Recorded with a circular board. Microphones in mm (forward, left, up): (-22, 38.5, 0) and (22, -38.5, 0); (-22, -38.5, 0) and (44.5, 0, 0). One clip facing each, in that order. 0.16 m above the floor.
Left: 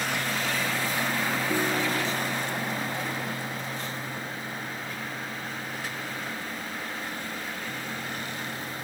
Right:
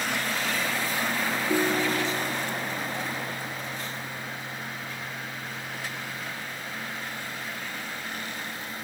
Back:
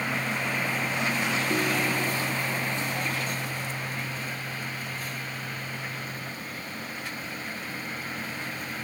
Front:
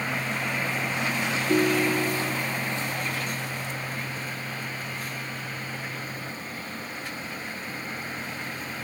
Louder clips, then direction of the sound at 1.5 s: Right 4 dB, front 8 dB; 10° left.